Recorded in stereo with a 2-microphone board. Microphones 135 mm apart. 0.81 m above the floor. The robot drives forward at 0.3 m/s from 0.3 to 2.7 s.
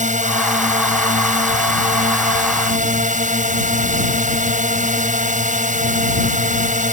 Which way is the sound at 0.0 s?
60° right (ahead or behind).